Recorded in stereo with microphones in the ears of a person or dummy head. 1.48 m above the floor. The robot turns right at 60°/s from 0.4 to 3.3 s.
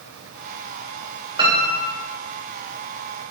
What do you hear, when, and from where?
1.4 s a piano: 160° right, 0.8 m; by 2.0 s 125° right, 0.8 m